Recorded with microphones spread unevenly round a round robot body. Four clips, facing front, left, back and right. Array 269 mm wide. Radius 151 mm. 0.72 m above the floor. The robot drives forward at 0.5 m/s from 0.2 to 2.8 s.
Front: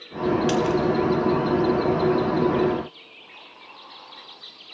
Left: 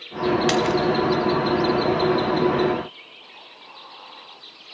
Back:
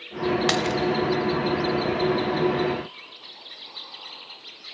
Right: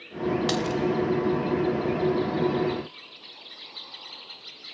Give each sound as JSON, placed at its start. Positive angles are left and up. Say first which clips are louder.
{"t": 0.5, "sound": "a dropped coin", "louder": "left 6 dB, front 3 dB", "azimuth_deg": 160, "distance_m": 1.6}